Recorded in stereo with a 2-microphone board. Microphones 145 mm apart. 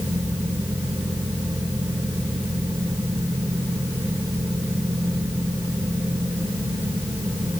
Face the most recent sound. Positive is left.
No sound to turn to.